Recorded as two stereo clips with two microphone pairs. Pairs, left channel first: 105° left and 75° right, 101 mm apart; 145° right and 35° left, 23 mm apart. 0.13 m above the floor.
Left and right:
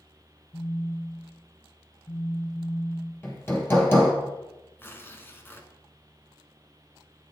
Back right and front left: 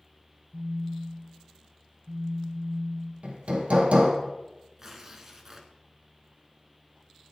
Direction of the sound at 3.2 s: 35° left.